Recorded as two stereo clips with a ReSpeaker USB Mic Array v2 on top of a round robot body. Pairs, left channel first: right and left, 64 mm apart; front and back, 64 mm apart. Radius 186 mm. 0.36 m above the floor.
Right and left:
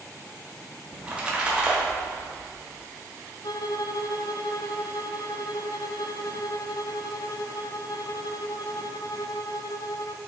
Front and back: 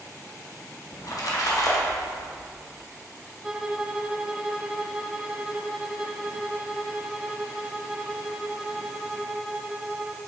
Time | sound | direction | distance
0.9 | a splash | 20° left | 2.0 m
3.4 | a violin | 100° right | 0.6 m